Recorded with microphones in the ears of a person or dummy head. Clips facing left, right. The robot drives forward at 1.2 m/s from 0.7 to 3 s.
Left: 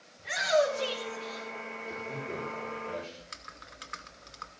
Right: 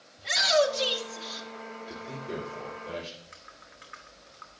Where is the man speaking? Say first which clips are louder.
Even; 20° right (ahead or behind), 3 m; by 3.1 s 15° right (ahead or behind), 4.5 m.